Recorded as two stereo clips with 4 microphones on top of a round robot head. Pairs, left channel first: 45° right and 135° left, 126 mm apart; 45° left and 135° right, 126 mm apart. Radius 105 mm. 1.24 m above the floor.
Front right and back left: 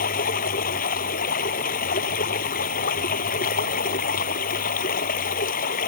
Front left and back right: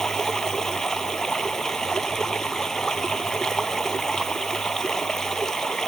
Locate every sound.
0.0 s running water: 40° right